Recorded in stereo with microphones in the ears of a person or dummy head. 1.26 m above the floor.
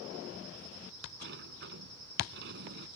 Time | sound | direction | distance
1.2 | a sliding door | 65° right (ahead or behind) | ?